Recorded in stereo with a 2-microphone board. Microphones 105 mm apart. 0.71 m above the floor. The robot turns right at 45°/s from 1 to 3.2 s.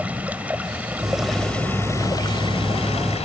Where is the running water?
15° right; by 3.2 s 85° left.